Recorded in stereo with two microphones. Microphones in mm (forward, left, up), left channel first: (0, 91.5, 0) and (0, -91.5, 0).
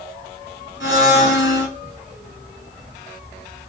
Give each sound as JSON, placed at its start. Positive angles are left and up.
{"t": 0.8, "sound": "a blender", "side_deg": -20, "distance_m": 1.1}